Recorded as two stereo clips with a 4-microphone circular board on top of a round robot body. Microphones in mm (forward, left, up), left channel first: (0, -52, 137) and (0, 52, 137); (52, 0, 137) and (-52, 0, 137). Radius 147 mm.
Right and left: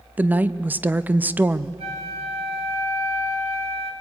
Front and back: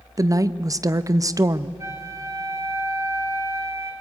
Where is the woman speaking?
155° left, 0.9 m.